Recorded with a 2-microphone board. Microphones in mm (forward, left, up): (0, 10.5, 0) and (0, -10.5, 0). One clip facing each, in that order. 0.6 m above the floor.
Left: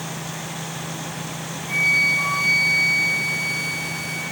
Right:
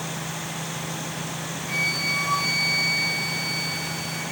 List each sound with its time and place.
1.7 s a flute: 40° right (ahead or behind), 10 m